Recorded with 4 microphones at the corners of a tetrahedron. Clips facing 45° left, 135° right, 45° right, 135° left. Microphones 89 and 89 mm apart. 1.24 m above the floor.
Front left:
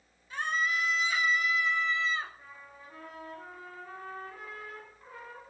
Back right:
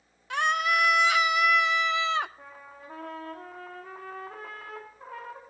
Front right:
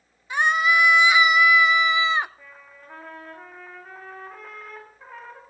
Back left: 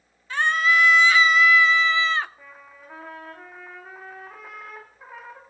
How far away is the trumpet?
About 3 m.